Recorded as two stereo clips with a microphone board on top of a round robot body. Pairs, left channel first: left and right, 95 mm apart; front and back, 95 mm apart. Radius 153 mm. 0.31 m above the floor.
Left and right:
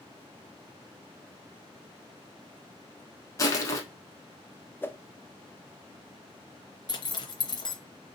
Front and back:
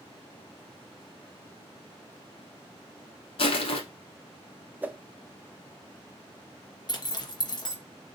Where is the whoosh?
130° left, 0.6 m.